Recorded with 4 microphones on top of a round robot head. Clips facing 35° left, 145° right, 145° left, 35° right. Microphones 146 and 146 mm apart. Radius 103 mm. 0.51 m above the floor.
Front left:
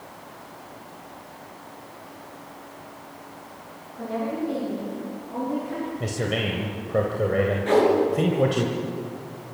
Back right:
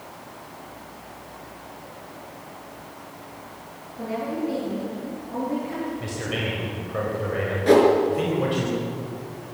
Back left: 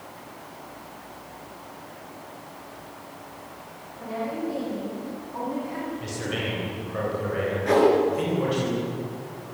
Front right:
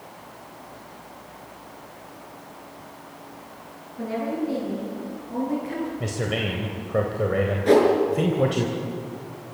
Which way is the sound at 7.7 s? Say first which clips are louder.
Back right 5 dB, front right 2 dB; 95° right.